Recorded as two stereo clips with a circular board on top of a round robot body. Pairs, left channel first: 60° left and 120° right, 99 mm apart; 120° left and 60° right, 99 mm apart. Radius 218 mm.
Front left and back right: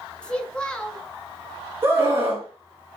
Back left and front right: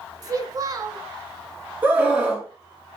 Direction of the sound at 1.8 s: 110° right.